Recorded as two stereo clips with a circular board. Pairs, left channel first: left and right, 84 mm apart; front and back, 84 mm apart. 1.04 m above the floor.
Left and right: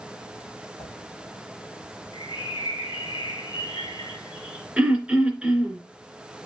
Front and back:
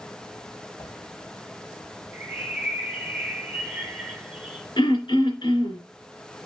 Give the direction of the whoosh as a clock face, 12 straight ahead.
10 o'clock.